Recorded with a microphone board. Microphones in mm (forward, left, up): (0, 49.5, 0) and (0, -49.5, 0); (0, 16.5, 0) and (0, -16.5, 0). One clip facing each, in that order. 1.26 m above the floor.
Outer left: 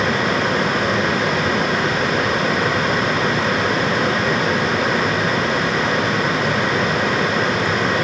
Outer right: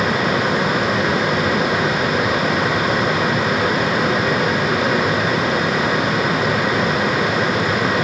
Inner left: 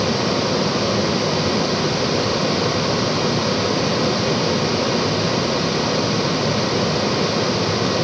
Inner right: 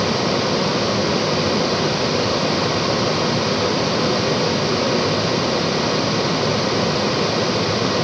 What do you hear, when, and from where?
Only background noise.